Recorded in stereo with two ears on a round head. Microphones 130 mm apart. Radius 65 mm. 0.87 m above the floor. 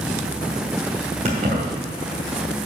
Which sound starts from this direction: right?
Keys jangling, at 1.2 s.